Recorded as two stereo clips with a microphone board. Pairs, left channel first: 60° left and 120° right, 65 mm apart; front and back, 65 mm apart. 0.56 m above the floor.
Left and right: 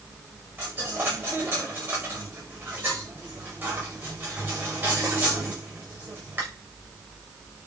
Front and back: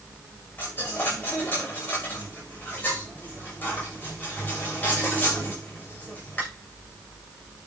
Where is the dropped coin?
65° right, 7.5 m.